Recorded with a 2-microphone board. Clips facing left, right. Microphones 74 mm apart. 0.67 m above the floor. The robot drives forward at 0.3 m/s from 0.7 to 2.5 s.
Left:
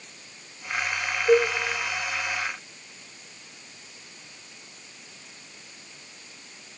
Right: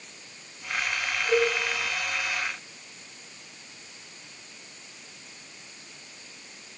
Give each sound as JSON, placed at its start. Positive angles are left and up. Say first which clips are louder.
{"t": 1.3, "sound": "a cowbell", "louder": "left 4 dB", "side_deg": 55, "distance_m": 2.5}